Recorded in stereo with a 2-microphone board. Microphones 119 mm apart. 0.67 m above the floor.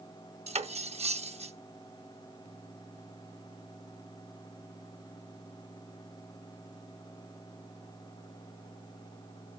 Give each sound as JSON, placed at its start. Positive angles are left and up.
{"t": 0.5, "sound": "cutlery clinking", "side_deg": -60, "distance_m": 0.9}